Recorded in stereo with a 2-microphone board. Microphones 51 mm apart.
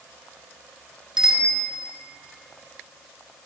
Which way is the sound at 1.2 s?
10° right (ahead or behind).